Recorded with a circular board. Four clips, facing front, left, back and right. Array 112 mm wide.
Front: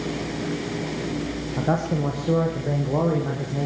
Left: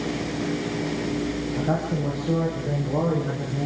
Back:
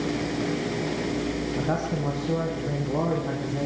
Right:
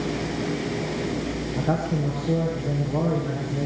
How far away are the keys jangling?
No keys jangling in this recording.